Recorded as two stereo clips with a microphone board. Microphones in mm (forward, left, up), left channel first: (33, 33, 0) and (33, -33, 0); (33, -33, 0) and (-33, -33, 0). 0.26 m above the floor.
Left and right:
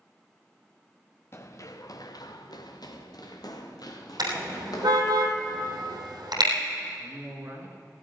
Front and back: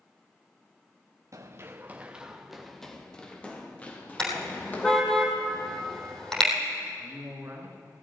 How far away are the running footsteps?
About 1.3 m.